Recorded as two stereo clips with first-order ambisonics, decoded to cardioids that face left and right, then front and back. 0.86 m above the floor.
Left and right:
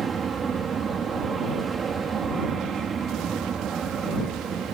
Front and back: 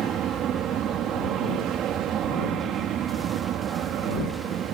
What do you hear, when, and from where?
0.0 s an aircraft: 145° right